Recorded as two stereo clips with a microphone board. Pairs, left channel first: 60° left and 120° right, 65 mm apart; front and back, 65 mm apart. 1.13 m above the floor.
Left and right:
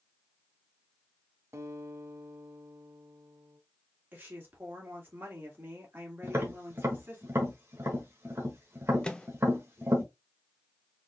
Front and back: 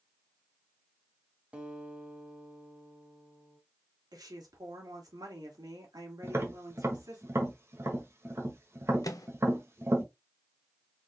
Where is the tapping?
155° right, 1.2 m.